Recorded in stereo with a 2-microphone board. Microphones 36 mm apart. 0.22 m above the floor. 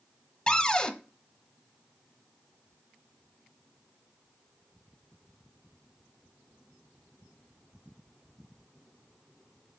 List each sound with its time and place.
0.5 s a cupboard door: 20° left (ahead or behind), 0.8 m